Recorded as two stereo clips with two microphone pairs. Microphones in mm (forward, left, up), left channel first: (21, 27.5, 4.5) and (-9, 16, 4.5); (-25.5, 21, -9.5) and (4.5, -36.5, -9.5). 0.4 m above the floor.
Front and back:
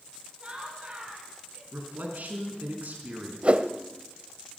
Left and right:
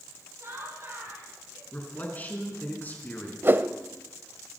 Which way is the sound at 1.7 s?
Straight behind.